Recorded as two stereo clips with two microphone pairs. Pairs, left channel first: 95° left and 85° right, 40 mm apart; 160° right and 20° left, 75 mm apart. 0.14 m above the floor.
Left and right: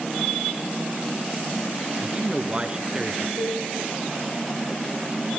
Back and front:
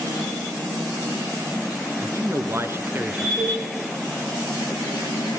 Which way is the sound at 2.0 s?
20° right.